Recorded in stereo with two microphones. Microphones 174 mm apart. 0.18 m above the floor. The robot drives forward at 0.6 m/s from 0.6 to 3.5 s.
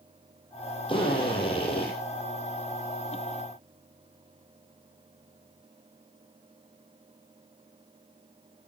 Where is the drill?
30° left (ahead or behind), 8 m; by 1.9 s 35° left (ahead or behind), 7.5 m.